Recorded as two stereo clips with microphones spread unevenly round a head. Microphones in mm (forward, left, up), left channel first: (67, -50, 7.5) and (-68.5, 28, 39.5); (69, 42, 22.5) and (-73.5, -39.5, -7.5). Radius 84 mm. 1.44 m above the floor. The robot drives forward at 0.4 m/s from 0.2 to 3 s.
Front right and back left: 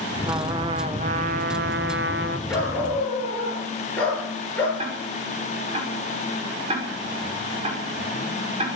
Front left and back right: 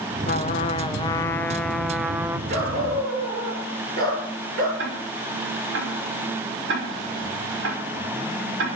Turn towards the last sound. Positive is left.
turn(degrees=-155)